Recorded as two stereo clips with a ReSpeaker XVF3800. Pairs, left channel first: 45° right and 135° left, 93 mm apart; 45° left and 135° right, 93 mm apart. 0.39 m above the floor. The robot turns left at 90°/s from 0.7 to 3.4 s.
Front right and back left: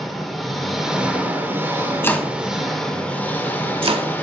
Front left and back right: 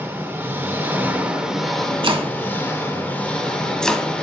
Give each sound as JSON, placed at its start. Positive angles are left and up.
{"t": 0.0, "sound": "an engine running", "azimuth_deg": -135, "distance_m": 1.2}
{"t": 2.0, "sound": "chopping", "azimuth_deg": -110, "distance_m": 0.7}